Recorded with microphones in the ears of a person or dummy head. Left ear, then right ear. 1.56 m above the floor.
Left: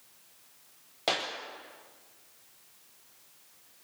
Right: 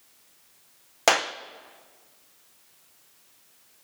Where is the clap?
50° right (ahead or behind), 0.6 m.